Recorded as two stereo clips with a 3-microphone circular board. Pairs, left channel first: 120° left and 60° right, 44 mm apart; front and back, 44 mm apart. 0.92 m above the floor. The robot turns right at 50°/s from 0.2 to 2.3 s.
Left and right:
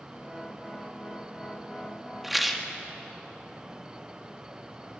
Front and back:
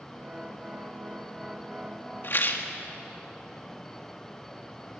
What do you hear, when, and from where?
2.2 s a rattle: 20° left, 1.9 m; by 2.7 s 25° left, 1.9 m